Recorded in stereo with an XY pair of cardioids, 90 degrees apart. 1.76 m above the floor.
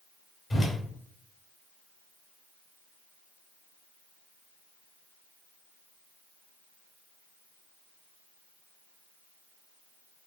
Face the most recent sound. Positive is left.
turn(degrees=40)